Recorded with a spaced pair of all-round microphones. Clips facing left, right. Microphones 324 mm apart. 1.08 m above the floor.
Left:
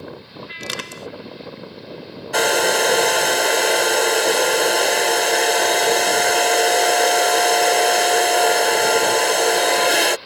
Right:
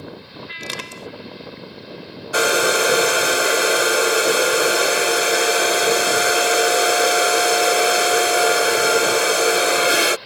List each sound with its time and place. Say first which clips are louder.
0.6 s crushing: left 2 dB; 20° left (ahead or behind)
2.3 s a hair dryer: even; 5° right (ahead or behind)